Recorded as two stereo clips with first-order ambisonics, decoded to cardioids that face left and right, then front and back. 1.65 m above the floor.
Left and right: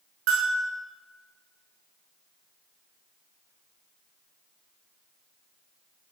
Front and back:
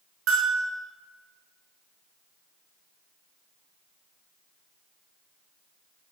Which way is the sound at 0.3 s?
130° right.